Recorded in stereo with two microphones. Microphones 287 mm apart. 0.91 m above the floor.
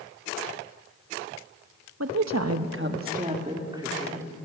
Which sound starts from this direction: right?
A woman speaking, at 2.0 s.